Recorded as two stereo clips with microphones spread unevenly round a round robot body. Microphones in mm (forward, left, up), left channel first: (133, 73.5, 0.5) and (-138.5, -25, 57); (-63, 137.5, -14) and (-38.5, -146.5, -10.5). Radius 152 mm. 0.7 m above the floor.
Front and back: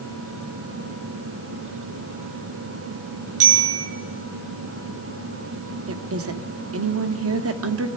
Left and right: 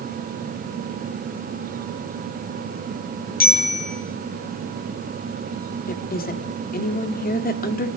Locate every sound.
3.4 s a bicycle bell: 155° left, 9 m
5.9 s a woman speaking: 155° left, 1.7 m